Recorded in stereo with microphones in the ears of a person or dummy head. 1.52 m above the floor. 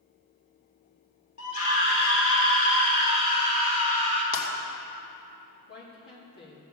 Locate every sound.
1.4 s a scream: 80° left, 3 m; by 4.2 s 40° left (ahead or behind), 3 m
4.3 s breaking glass: 70° left (ahead or behind), 2 m
5.7 s a woman speaking: 65° left (ahead or behind), 3 m